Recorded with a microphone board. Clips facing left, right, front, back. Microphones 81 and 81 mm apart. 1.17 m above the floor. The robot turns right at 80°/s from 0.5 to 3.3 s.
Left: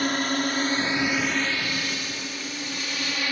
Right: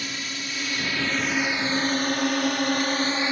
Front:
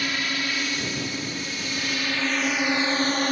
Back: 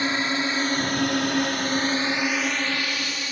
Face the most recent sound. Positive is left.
turn(degrees=-25)